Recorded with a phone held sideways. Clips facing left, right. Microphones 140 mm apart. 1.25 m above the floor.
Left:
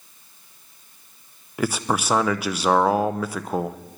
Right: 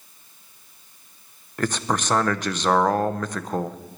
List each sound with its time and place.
1.6 s a man speaking: 5° left (ahead or behind), 0.6 m